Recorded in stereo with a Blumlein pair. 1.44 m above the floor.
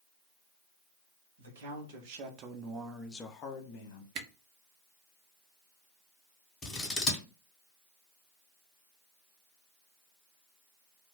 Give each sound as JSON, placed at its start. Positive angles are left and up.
{"t": 1.4, "sound": "a man speaking", "azimuth_deg": -60, "distance_m": 1.1}
{"t": 4.2, "sound": "a camera shutter", "azimuth_deg": -40, "distance_m": 0.6}
{"t": 6.6, "sound": "scissors", "azimuth_deg": 20, "distance_m": 1.1}